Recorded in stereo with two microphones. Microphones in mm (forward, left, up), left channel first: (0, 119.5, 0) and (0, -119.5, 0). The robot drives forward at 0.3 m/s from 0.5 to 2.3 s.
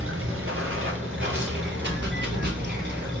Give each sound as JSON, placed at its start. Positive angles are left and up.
{"t": 0.0, "sound": "running water", "side_deg": -60, "distance_m": 0.8}